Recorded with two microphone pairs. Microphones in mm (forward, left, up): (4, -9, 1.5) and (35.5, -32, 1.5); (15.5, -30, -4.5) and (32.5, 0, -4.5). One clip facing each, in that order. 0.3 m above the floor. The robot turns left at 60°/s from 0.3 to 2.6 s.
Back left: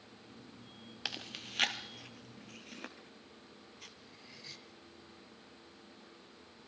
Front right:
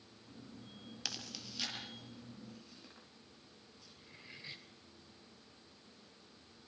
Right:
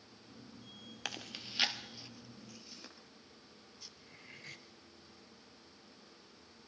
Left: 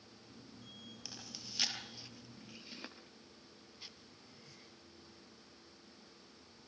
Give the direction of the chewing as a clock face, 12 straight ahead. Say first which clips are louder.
Back left 4 dB, right 11 dB; 5 o'clock.